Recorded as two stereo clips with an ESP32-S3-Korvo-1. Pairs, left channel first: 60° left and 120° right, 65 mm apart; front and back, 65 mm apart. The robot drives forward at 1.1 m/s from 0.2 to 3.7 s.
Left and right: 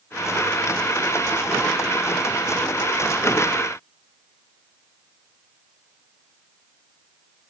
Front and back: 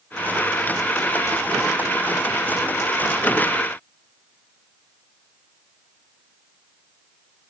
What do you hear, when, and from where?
Only background noise.